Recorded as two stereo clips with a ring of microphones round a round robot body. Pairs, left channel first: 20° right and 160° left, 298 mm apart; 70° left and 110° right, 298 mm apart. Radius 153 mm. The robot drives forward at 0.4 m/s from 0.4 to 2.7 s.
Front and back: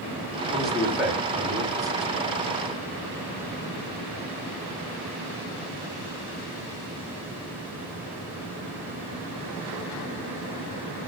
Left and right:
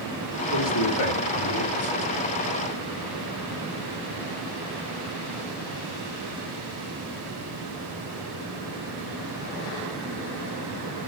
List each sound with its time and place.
0.5 s a man speaking: 65° left, 2.5 m; by 2.1 s 80° left, 2 m